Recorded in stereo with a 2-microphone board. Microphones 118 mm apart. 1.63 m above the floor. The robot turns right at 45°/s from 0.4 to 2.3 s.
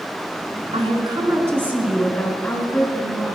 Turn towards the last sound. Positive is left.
turn(degrees=15)